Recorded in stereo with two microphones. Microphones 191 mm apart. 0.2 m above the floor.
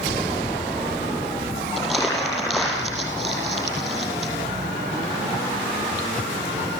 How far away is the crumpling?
About 6.5 m.